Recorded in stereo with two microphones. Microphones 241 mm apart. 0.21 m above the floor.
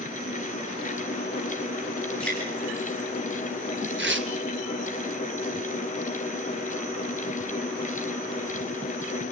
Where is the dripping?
5° left (ahead or behind), 9.5 m.